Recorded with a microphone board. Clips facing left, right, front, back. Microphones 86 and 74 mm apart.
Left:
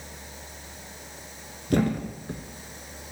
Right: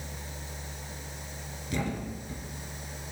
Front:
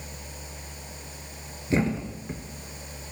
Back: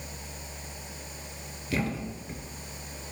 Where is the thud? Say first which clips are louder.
Left 9 dB, front 5 dB; 60° left, 1.0 m.